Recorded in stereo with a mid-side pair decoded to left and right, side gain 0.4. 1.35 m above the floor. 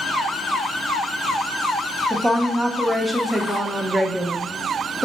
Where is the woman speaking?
Straight ahead, 0.8 m.